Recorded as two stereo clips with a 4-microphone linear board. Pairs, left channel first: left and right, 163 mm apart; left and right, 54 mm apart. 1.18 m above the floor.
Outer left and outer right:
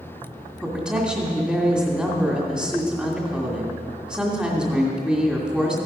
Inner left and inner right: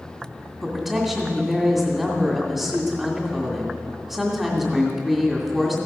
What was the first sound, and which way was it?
A woman speaking, centre (ahead or behind).